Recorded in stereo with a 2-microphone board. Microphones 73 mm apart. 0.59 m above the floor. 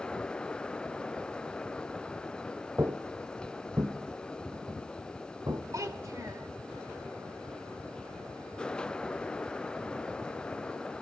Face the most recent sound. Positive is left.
turn(degrees=-50)  # may be behind; listen again after turning